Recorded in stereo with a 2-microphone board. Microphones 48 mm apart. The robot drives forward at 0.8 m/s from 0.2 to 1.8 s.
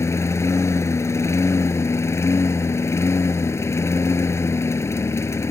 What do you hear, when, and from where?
0.0 s a lawn mower: 80° left; by 5.5 s 75° left (ahead or behind)